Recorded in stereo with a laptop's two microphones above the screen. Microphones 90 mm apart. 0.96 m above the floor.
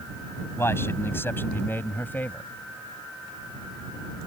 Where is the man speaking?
30° left (ahead or behind); by 2.5 s 20° left (ahead or behind).